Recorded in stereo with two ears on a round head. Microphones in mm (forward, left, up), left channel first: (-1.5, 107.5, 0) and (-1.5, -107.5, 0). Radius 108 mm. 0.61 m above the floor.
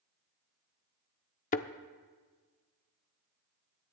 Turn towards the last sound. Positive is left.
turn(degrees=30)  # may be behind; listen again after turning